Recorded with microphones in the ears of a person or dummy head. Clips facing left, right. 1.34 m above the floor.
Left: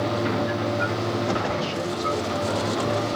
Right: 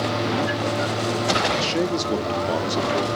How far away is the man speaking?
About 2 m.